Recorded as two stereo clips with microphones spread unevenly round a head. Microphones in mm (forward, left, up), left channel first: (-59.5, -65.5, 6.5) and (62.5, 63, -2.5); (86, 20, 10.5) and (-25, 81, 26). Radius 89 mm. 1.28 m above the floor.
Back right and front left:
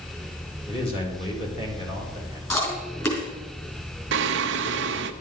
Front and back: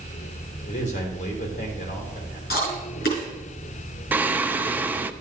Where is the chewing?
60° right, 4 m.